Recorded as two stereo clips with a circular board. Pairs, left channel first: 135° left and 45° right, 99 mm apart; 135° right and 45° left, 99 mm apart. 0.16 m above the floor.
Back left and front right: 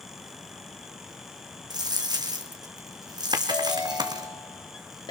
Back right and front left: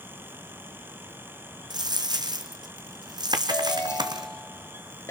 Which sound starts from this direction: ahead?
A dropped coin, at 1.7 s.